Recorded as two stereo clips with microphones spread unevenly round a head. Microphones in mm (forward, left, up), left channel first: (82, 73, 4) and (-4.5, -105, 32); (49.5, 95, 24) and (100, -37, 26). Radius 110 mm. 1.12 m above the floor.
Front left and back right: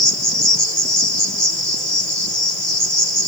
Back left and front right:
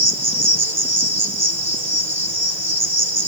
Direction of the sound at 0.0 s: 25° right.